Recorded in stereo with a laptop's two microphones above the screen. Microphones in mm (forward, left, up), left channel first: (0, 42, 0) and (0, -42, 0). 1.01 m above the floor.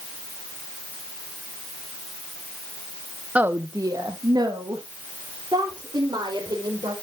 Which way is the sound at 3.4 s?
15° right (ahead or behind).